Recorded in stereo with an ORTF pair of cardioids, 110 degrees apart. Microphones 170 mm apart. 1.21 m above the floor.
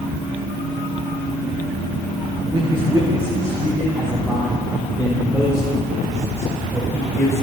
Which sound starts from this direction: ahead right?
A man speaking, at 2.5 s.